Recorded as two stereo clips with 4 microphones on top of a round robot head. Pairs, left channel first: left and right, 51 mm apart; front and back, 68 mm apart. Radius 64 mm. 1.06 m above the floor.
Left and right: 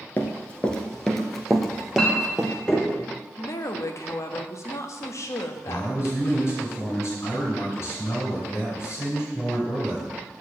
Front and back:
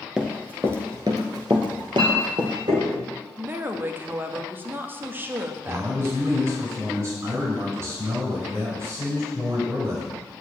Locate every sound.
0.2 s running footsteps: 100° left, 1.0 m; by 2.5 s 170° right, 1.9 m
1.6 s a clink: 165° left, 3.5 m
3.4 s a woman speaking: 115° left, 1.4 m
5.7 s a man speaking: 125° left, 5.5 m